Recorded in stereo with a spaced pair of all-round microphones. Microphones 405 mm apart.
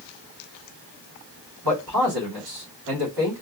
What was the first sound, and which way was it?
A man speaking, 60° right (ahead or behind).